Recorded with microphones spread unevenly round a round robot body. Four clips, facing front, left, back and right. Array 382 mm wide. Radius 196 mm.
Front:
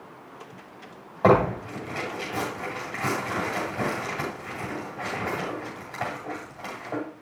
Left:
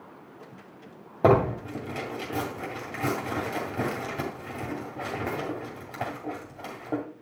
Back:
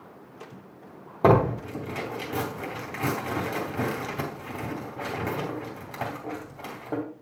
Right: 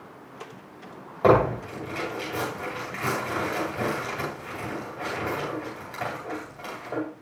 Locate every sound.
1.2 s tearing paper: 120° left, 2.5 m